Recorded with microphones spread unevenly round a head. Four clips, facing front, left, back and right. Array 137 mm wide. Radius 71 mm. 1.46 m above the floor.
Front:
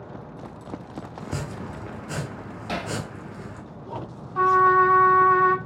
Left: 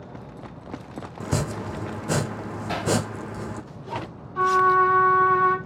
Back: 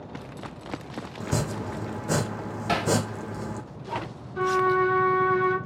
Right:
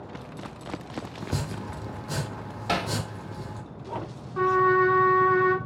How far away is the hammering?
About 1.4 m.